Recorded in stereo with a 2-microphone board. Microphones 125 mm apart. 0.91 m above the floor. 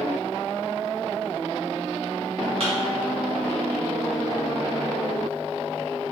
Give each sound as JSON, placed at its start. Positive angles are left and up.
{"t": 2.6, "sound": "a thud", "side_deg": -60, "distance_m": 1.9}